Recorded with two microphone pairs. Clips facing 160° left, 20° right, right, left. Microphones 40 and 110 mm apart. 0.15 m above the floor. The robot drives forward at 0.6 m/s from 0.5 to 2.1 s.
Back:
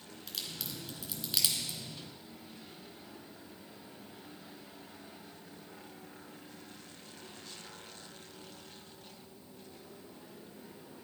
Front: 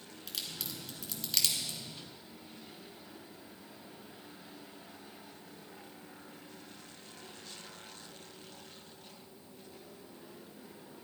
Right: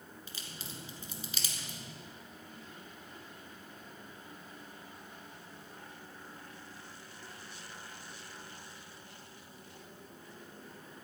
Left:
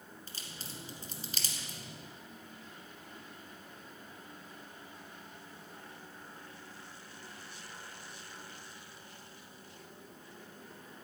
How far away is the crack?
About 2 m.